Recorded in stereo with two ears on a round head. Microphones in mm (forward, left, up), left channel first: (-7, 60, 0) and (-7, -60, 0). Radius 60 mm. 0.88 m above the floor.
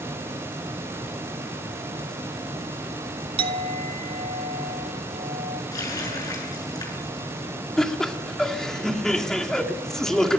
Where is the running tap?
25° left (ahead or behind), 7.5 m.